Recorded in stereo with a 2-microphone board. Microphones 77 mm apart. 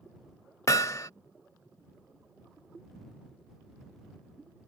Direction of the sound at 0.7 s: 45° left (ahead or behind).